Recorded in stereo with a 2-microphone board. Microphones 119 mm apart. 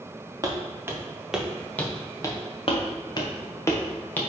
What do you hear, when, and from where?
0.4 s footsteps: 30° right (ahead or behind), 1.8 m; by 2.4 s 30° left (ahead or behind), 1.5 m
2.7 s footsteps: 50° left (ahead or behind), 1.6 m; by 4.2 s 15° left (ahead or behind), 1.8 m